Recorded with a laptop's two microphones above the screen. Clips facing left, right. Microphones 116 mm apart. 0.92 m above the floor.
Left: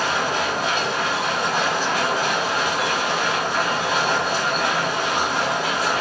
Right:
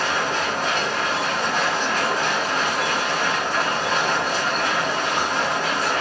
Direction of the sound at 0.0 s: 10° left (ahead or behind).